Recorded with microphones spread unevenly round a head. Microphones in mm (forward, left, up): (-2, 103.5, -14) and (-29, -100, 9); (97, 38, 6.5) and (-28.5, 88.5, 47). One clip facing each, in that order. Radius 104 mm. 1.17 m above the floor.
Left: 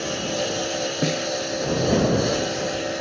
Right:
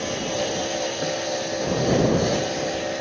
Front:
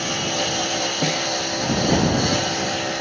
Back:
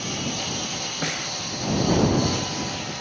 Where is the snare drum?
35° left.